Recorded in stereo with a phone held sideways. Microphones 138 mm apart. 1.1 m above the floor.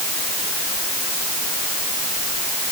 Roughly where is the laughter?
I don't hear laughter.